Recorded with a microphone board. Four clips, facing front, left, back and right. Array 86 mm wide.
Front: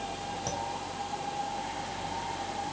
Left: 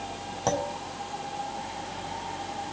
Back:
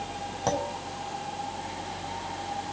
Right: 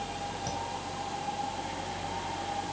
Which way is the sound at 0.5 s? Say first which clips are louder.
Left 12 dB, back 8 dB; 130° left.